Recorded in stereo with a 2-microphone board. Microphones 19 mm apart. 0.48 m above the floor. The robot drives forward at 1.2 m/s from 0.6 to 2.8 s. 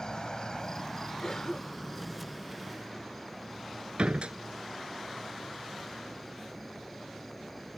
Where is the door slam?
60° right (ahead or behind).